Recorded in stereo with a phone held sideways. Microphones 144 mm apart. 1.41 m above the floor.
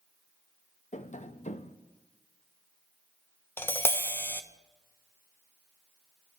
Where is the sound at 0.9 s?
55° left (ahead or behind), 0.8 m.